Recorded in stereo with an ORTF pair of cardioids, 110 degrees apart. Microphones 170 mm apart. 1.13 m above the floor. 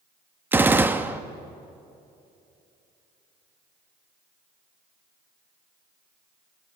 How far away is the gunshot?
About 1.0 m.